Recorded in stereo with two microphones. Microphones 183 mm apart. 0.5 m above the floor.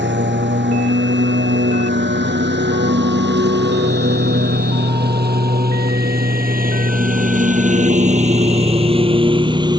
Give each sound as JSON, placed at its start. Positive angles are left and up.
{"t": 0.0, "sound": "a lawn mower", "side_deg": -85}